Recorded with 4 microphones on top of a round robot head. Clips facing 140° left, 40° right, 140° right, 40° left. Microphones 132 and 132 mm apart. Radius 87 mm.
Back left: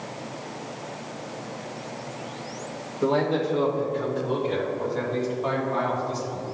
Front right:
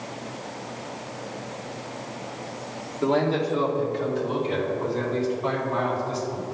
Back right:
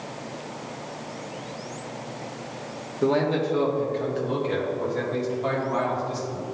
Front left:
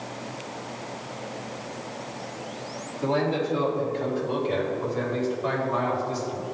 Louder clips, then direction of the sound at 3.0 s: Even, back right 3 dB; 130° right.